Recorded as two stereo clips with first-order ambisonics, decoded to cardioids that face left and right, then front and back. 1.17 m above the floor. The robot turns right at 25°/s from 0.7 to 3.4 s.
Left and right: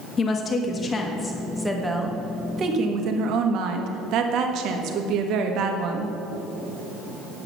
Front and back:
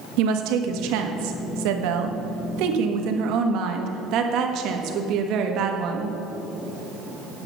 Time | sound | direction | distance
0.2 | a woman speaking | 155° left | 1.3 m